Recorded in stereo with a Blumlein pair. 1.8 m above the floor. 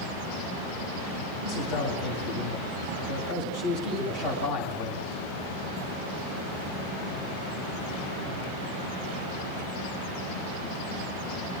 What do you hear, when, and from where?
1.4 s a man speaking: 60° left, 9.5 m